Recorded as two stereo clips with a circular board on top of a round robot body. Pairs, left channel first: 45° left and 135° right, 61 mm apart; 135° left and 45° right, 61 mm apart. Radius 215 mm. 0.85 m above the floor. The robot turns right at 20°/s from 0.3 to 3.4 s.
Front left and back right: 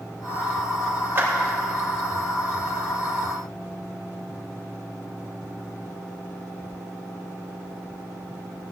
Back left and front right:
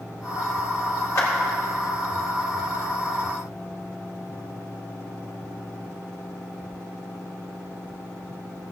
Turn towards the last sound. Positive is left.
turn(degrees=-145)